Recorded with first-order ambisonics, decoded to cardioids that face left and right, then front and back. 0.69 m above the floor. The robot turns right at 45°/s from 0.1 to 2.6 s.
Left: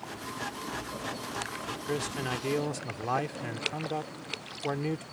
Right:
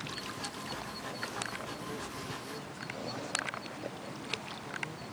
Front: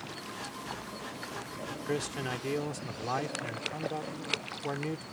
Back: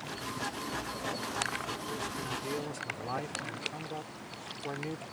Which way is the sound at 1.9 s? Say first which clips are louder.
Left 8 dB, front 3 dB; 45° left.